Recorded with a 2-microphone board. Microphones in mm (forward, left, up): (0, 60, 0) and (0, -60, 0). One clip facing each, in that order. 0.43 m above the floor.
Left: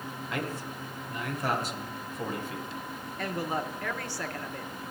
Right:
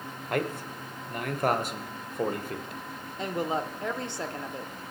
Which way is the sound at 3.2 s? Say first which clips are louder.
Right 3 dB; 20° right (ahead or behind).